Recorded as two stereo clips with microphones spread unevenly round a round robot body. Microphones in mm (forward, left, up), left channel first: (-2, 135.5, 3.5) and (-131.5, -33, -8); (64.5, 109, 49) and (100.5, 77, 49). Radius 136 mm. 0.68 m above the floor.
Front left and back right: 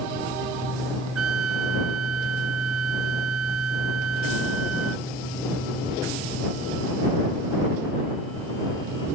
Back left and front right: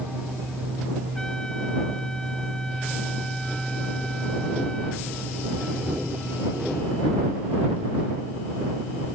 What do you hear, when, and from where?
1.1 s a trumpet: 135° right